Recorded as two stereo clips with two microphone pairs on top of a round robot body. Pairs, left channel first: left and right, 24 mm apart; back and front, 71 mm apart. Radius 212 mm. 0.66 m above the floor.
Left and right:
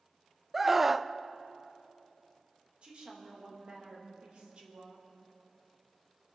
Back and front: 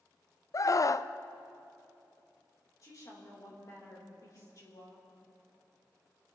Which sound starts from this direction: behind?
A scream, at 0.5 s.